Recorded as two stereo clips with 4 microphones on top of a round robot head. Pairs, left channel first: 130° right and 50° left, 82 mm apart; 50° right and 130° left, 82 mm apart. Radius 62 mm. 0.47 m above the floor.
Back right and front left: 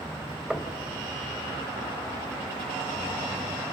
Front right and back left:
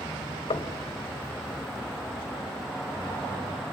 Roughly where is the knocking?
Ahead right.